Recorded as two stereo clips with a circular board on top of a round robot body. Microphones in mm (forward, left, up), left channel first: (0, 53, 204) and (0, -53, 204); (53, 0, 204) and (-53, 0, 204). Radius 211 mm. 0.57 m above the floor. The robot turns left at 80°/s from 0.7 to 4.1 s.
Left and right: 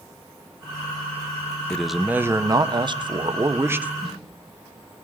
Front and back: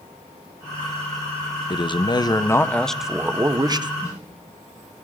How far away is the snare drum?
About 6 m.